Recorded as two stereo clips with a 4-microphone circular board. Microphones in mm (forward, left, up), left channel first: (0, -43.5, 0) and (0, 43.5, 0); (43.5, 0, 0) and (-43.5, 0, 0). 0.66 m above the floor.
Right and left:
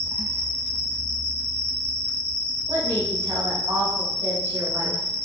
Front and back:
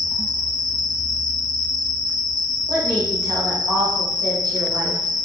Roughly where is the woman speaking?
Behind left.